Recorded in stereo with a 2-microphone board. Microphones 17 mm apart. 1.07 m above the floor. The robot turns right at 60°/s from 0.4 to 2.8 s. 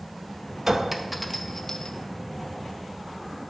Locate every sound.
0.7 s a clink: 35° right (ahead or behind), 0.5 m; by 2.0 s 40° left (ahead or behind), 0.5 m